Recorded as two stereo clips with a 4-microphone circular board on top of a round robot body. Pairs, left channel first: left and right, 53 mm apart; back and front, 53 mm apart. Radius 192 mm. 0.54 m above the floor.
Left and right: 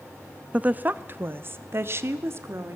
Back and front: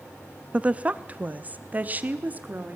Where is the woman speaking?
50° right, 0.8 m; by 2.8 s 60° right, 1.9 m.